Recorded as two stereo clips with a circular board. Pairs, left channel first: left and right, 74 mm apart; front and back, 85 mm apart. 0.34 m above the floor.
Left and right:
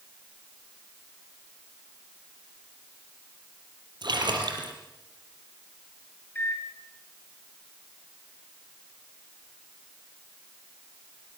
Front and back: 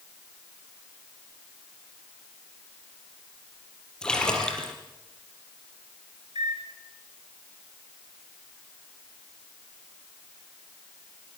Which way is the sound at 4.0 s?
80° right.